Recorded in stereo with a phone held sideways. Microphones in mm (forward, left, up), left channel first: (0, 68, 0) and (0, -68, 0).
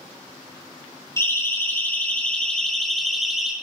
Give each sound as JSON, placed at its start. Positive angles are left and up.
{"t": 1.2, "sound": "a siren", "side_deg": 20, "distance_m": 5.5}